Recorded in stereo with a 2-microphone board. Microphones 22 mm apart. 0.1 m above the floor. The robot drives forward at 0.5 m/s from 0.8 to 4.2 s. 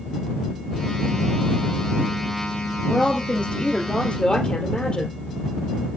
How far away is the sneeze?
I don't hear a sneeze.